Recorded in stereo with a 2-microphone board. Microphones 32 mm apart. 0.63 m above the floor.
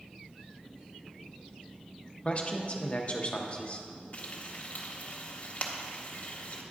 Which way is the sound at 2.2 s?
40° left (ahead or behind).